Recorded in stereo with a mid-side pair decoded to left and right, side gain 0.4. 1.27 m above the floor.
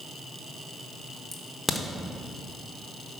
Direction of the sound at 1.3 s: 15° left.